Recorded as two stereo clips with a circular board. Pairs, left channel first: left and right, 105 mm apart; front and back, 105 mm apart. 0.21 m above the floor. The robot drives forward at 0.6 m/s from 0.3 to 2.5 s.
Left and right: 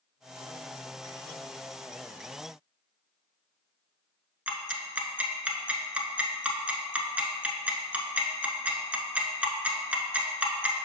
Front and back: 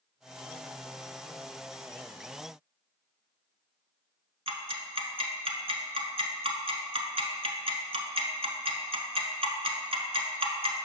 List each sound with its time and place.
4.5 s ticking: 165° right, 0.7 m